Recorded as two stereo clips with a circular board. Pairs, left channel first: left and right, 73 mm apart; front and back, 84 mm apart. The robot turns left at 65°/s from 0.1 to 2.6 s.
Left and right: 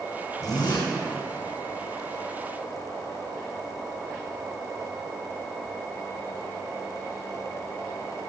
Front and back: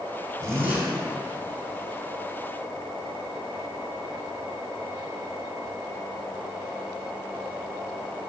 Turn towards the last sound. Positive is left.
turn(degrees=-15)